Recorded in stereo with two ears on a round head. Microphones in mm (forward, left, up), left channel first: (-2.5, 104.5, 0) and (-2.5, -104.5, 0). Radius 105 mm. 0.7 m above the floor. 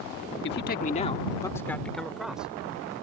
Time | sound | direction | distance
0.4 | a man speaking | 50° left (ahead or behind) | ?